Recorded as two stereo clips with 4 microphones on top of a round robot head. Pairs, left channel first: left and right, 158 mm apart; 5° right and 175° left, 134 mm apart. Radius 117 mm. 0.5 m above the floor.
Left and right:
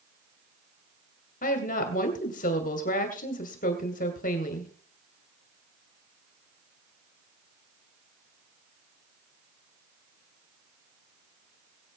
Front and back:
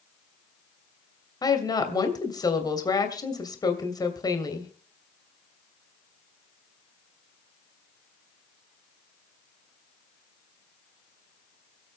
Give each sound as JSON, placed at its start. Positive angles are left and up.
{"t": 1.4, "sound": "a woman speaking", "azimuth_deg": 55, "distance_m": 2.5}